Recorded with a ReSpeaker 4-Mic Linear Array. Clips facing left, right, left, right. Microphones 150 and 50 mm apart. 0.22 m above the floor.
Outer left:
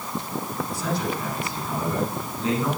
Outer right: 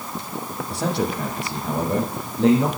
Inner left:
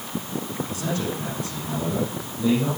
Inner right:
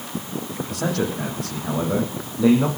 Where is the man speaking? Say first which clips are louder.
Outer right 5 dB, inner right 6 dB; 75° right (ahead or behind), 7 m.